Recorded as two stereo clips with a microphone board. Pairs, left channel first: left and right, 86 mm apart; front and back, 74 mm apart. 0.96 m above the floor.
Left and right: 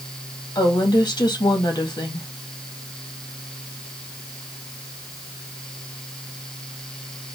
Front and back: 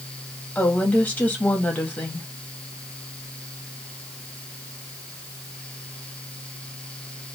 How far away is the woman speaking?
About 1.8 m.